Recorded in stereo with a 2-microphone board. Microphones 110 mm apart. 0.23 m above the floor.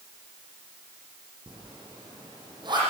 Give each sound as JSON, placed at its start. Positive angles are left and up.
{"t": 1.5, "sound": "a zipper", "side_deg": -45, "distance_m": 9.5}